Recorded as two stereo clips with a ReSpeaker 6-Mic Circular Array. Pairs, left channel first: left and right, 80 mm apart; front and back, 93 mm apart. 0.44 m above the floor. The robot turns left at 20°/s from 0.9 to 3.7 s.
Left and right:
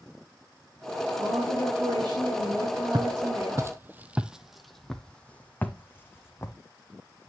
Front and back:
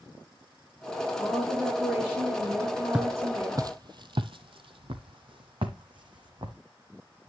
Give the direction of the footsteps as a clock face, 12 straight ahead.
3 o'clock.